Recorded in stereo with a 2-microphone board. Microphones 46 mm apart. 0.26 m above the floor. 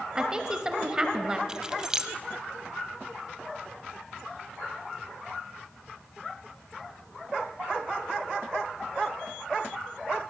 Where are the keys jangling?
15° right (ahead or behind), 0.7 m.